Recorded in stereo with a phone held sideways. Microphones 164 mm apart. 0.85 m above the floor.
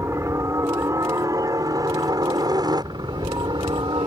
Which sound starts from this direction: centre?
A helicopter, at 0.0 s.